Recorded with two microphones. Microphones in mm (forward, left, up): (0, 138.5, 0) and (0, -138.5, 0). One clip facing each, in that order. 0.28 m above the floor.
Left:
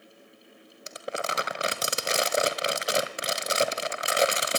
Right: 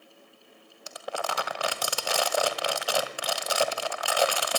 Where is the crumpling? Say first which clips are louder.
Left 1 dB; 20° left (ahead or behind), 1.5 m.